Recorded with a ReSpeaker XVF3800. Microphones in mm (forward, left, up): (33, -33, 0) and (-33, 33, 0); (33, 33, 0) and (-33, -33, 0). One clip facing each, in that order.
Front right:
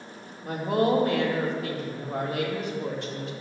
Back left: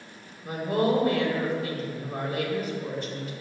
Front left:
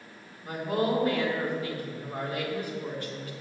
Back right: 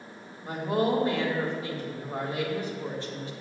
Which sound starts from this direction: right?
A woman speaking, at 0.4 s.